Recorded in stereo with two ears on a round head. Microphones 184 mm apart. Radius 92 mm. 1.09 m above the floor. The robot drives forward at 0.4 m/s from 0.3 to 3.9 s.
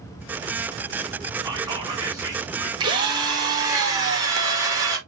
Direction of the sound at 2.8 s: 25° right (ahead or behind).